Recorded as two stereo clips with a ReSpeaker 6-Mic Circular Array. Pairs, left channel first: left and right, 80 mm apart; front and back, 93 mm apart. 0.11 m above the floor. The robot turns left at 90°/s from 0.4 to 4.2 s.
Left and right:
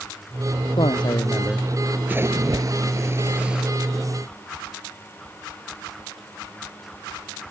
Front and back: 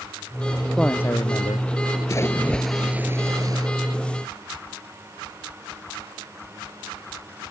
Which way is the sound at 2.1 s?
35° right.